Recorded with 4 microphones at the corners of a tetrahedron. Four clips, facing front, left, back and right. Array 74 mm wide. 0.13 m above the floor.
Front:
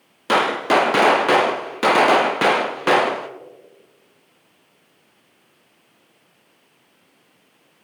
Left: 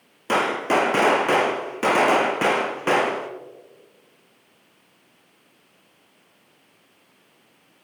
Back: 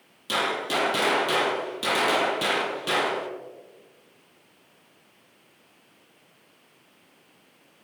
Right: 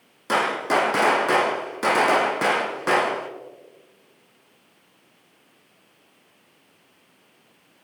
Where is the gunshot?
15° left, 1.1 m.